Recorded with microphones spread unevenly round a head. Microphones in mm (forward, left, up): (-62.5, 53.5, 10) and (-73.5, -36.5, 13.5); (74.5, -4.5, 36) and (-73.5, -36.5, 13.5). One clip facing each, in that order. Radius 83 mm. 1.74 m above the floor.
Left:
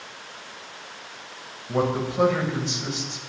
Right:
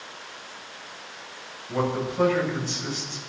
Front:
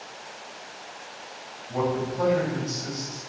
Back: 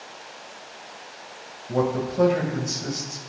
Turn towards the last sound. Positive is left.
turn(degrees=150)